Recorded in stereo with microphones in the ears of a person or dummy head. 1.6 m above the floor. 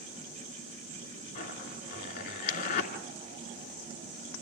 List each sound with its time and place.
1.4 s a zipper: 50° left (ahead or behind), 3 m